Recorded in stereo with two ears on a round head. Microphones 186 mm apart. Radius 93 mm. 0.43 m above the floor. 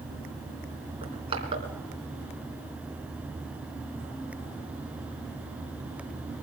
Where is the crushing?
30° right (ahead or behind), 3.5 m.